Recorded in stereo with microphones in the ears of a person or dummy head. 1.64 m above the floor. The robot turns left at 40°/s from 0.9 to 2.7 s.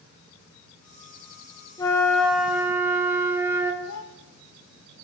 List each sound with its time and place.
1.8 s a flute: 20° left, 1.2 m; by 3.7 s 20° right, 1.2 m
3.8 s a child speaking: 65° left (ahead or behind), 1.0 m